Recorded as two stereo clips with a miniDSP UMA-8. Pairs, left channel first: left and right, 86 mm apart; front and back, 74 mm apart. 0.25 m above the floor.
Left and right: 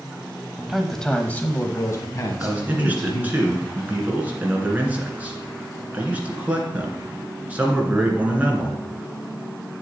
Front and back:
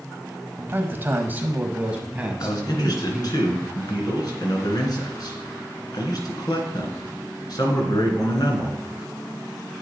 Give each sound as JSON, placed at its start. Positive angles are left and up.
{"t": 0.6, "sound": "a man speaking", "azimuth_deg": -165, "distance_m": 1.1}
{"t": 2.4, "sound": "a man speaking", "azimuth_deg": -20, "distance_m": 2.5}